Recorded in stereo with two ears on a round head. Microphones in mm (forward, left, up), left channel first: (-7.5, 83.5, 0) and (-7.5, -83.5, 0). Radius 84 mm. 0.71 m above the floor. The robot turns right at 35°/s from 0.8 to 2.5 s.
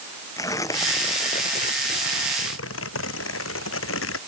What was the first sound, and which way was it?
Tearing paper, 20° left.